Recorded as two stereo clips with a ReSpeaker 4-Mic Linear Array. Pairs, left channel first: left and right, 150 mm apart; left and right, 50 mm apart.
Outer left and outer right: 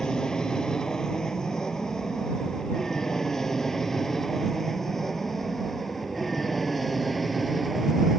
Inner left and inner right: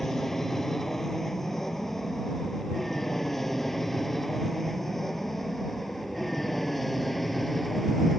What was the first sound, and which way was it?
An aircraft, 5° left (ahead or behind).